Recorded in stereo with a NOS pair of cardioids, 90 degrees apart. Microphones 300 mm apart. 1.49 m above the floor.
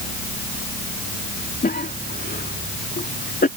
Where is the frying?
No frying in this recording.